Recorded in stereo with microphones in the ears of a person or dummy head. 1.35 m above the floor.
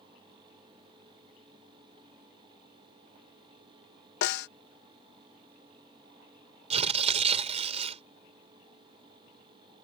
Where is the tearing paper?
35° right (ahead or behind).